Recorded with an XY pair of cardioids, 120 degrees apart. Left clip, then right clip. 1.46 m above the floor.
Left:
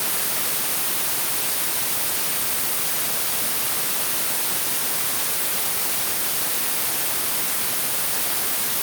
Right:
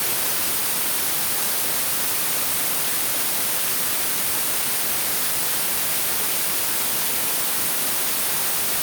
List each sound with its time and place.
Only background noise.